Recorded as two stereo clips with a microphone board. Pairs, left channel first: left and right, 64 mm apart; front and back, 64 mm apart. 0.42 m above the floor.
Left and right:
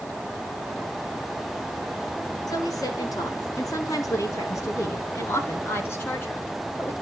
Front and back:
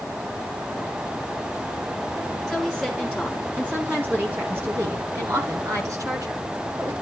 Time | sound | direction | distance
2.5 | a woman speaking | 105° left | 5.5 m